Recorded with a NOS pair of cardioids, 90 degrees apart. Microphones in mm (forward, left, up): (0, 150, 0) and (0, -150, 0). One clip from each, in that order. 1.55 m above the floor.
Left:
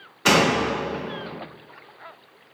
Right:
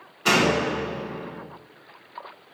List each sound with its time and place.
0.2 s a door slam: 45° left, 1.5 m